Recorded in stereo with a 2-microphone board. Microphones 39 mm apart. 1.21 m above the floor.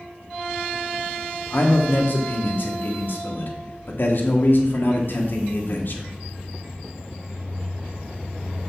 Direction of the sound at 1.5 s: 60° left (ahead or behind).